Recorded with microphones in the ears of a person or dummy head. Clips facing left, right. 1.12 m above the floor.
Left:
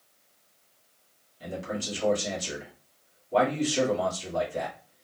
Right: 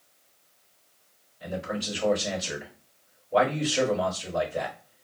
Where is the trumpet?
No trumpet in this recording.